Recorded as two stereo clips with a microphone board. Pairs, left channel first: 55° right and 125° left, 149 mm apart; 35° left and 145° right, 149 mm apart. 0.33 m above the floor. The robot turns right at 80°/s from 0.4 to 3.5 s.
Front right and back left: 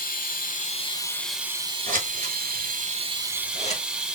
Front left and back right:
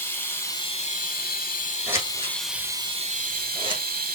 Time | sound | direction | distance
0.0 | running water | 40° right | 0.8 m
1.9 | scissors | 135° left | 1.3 m